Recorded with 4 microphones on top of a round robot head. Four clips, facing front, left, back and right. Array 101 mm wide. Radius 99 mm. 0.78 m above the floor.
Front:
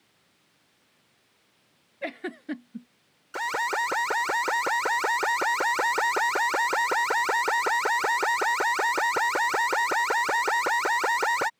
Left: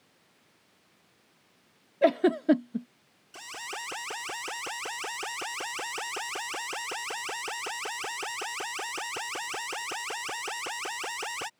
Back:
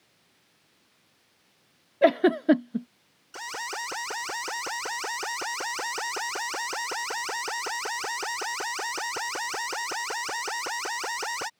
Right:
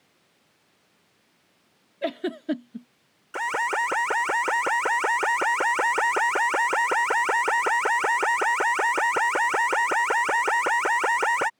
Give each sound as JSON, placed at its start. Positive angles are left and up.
{"t": 2.0, "sound": "a giggle", "azimuth_deg": 155}
{"t": 3.3, "sound": "an alarm", "azimuth_deg": -60}